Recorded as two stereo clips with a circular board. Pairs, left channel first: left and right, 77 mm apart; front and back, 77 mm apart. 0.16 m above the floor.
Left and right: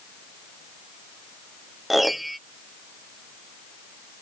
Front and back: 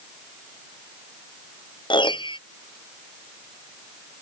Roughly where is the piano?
Ahead.